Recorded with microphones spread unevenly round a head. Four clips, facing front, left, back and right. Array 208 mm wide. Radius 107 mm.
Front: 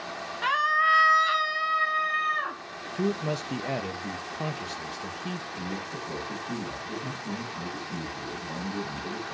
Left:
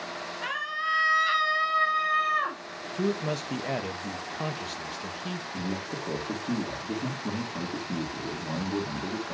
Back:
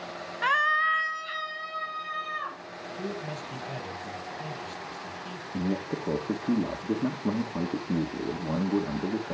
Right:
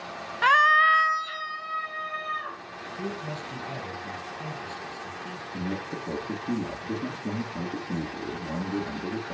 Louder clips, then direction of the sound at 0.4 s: Right 14 dB, front 1 dB; 90° right.